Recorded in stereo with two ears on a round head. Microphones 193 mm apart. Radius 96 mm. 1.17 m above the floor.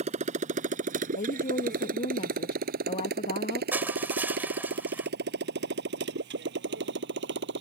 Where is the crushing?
10° right (ahead or behind).